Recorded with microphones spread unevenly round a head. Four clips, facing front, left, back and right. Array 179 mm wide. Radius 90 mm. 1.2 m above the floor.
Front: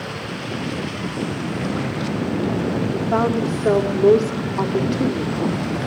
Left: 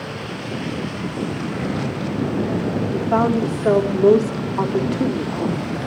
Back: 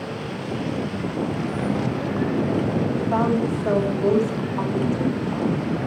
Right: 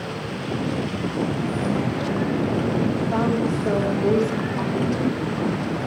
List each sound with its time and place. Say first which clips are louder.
2.9 s a woman speaking: left 4 dB, front 2 dB; 65° left, 3.5 m